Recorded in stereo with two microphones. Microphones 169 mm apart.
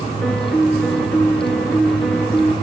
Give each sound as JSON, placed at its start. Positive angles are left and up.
{"t": 0.2, "sound": "a piano", "side_deg": 5, "distance_m": 1.0}